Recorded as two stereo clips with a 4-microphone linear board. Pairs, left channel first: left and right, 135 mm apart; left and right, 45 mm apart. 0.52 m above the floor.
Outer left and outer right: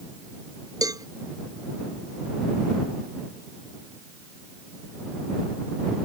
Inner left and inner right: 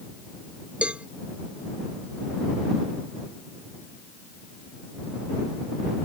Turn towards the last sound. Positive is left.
turn(degrees=-25)  # may be behind; listen again after turning